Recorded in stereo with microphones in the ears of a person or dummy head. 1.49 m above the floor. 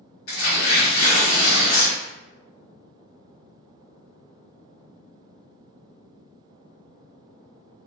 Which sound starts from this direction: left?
Tearing paper, at 0.3 s.